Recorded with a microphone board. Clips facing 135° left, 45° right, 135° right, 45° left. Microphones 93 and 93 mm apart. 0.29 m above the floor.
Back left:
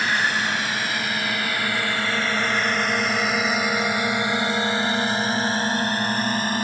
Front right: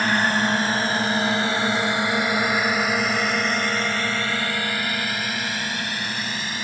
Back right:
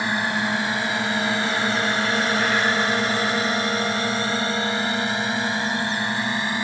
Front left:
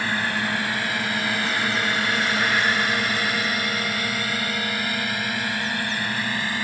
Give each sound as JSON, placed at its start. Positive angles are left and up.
{"t": 0.0, "sound": "a drone", "azimuth_deg": -70}